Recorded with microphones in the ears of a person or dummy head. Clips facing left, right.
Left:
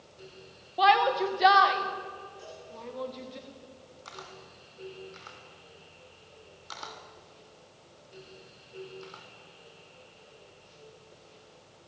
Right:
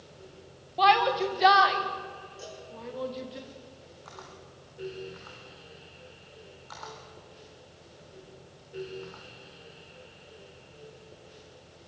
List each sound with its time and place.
0.8 s a shout: 5° left (ahead or behind), 2.0 m; by 3.4 s 5° right (ahead or behind), 3.5 m
2.4 s a cowbell: 40° right (ahead or behind), 8.5 m
4.0 s a camera shutter: 40° left (ahead or behind), 3 m